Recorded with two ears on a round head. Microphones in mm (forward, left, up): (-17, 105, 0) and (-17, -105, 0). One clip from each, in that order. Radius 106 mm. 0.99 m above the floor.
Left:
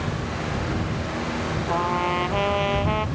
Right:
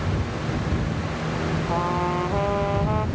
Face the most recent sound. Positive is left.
turn(degrees=70)  # may be behind; listen again after turning